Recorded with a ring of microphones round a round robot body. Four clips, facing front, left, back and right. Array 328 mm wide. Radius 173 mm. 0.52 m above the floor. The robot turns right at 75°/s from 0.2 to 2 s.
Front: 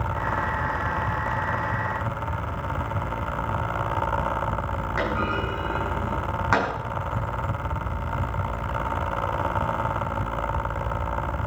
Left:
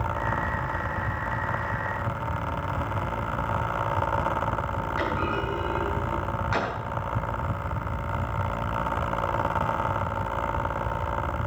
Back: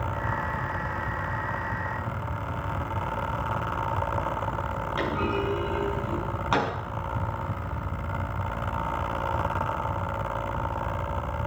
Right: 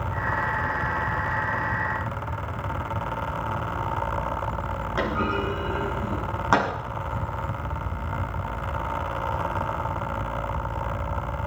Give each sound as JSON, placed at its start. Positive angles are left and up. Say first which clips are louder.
{"t": 5.0, "sound": "a clunk", "louder": "right 3 dB, front 1 dB", "azimuth_deg": -80, "distance_m": 6.5}